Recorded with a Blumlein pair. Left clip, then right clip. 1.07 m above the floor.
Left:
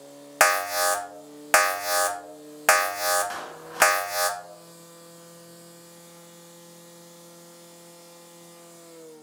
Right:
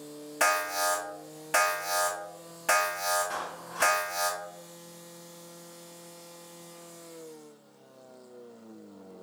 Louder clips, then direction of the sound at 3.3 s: Even; 60° left.